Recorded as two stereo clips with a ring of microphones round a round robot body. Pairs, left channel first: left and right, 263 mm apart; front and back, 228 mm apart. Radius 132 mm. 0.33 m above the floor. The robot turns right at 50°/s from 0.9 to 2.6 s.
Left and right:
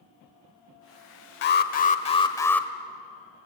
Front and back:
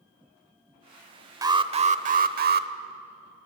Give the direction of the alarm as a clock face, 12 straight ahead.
8 o'clock.